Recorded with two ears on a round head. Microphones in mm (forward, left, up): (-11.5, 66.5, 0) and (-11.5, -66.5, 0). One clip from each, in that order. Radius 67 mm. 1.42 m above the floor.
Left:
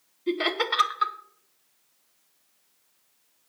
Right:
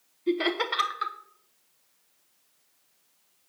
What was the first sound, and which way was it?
Laughter, 10° left (ahead or behind).